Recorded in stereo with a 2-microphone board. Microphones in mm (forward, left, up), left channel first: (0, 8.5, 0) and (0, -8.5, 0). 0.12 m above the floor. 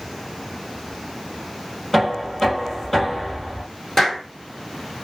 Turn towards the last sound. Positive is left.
turn(degrees=20)  # may be behind; listen again after turning